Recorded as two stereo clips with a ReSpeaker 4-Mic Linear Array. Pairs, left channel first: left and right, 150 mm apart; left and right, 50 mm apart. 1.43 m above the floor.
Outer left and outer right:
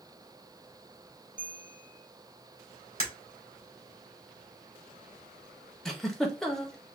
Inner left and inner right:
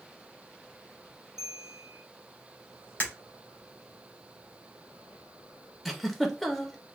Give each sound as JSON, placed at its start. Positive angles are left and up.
{"t": 1.4, "sound": "a bell", "side_deg": 65, "distance_m": 1.8}
{"t": 3.0, "sound": "breaking glass", "side_deg": 40, "distance_m": 3.0}
{"t": 5.8, "sound": "a giggle", "side_deg": 5, "distance_m": 0.8}